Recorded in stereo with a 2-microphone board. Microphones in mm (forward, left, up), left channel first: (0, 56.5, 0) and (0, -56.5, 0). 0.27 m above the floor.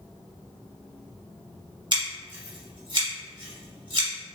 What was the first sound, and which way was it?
Scissors, 45° right (ahead or behind).